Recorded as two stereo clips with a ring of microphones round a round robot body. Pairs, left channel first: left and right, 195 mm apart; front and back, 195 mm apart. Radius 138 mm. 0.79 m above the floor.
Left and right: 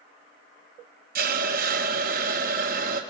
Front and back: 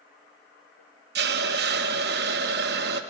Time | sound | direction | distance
1.1 | a hiss | 140° right | 0.8 m